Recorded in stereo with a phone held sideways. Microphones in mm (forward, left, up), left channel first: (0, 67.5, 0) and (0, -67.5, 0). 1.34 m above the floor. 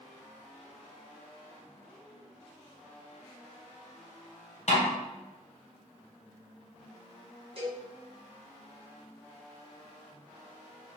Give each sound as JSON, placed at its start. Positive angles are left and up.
{"t": 4.7, "sound": "a snare drum", "side_deg": 60, "distance_m": 1.0}
{"t": 7.6, "sound": "a cowbell", "side_deg": -45, "distance_m": 1.1}